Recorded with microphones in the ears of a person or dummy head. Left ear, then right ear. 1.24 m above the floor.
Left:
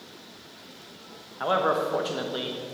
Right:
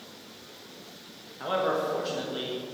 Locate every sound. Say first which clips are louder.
1.4 s a man speaking: left 3 dB; 25° left (ahead or behind), 1.2 m